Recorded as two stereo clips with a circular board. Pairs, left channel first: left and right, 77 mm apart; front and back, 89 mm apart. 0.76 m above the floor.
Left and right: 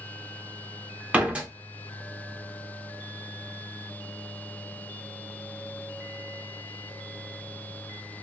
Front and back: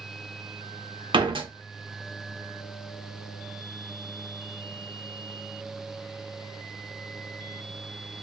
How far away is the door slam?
About 0.7 m.